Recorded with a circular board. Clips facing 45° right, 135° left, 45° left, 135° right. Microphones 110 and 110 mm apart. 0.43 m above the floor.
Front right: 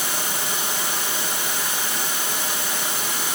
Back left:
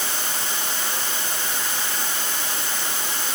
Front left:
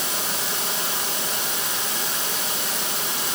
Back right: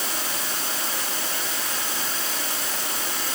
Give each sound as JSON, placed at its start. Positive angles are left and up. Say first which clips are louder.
{"t": 0.0, "sound": "running water", "louder": "front right 2 dB, front left 1 dB", "azimuth_deg": 30, "distance_m": 5.0}